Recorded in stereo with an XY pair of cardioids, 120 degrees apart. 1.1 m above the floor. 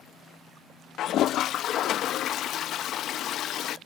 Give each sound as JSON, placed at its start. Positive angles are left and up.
{"t": 1.0, "sound": "a toilet flushing", "azimuth_deg": 60}